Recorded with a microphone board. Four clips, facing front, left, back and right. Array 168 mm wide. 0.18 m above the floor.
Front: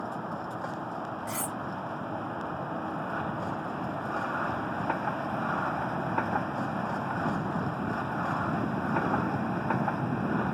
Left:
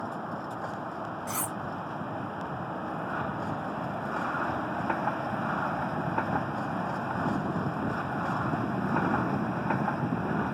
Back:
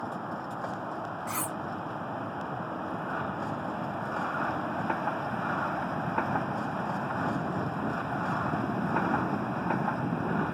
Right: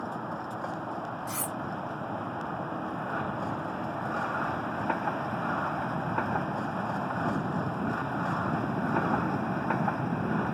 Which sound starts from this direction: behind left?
Cutlery clinking, at 1.3 s.